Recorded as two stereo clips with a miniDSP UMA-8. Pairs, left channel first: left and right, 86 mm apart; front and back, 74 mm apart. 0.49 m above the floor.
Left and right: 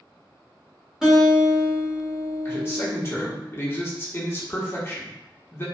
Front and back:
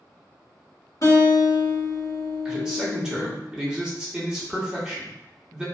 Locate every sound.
1.0 s a guitar: 10° right, 1.0 m
2.5 s a man speaking: 110° left, 0.8 m